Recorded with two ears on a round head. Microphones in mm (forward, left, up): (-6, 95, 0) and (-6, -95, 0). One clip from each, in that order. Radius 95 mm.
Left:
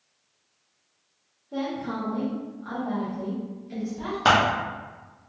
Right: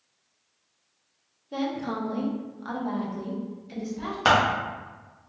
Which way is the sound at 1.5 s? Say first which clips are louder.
Right 1 dB; 60° right (ahead or behind).